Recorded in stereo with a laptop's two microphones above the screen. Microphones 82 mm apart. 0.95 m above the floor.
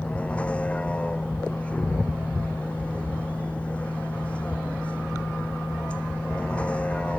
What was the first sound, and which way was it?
A vehicle, 15° left (ahead or behind).